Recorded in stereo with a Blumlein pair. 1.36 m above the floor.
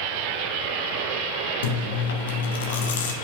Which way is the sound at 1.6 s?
60° left.